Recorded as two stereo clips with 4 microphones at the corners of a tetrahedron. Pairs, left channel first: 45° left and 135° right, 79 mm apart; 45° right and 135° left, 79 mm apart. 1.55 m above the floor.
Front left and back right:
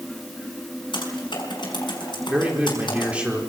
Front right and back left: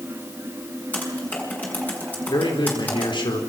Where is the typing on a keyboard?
25° left, 5.5 m.